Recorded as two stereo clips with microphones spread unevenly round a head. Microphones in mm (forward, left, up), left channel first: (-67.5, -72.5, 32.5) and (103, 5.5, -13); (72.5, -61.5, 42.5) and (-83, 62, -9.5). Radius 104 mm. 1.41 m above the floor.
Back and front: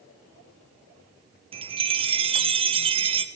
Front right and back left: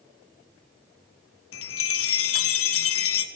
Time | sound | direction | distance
1.5 | a chime | 20° right | 0.7 m